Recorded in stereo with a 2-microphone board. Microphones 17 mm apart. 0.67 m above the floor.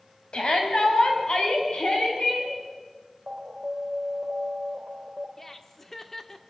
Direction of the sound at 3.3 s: 45° right (ahead or behind).